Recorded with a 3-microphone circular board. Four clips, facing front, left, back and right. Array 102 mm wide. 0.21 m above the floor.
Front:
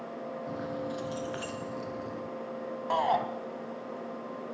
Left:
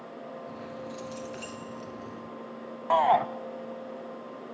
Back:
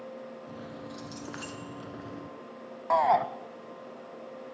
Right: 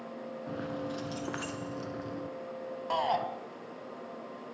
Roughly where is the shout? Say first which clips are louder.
Left 8 dB, back 4 dB; behind left.